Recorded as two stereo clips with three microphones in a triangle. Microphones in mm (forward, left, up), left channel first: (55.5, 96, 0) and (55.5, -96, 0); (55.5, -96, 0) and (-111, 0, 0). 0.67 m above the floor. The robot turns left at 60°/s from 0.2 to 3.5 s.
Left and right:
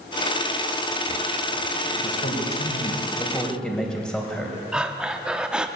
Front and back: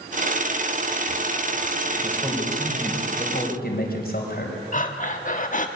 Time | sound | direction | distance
2.0 | a man speaking | 90° left | 4 m
4.7 | breathing | 5° right | 1.2 m